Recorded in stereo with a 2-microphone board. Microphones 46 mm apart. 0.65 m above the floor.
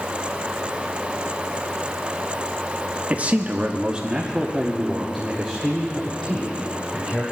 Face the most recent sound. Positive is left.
turn(degrees=10)  # may be behind; listen again after turning